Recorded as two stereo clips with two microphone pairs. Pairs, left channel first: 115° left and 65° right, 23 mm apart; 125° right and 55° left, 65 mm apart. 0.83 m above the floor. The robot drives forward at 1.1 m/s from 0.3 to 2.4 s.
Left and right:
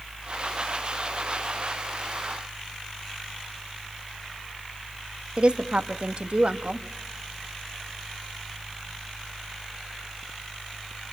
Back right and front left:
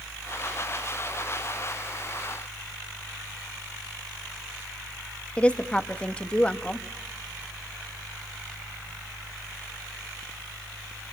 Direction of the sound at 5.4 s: 55° right.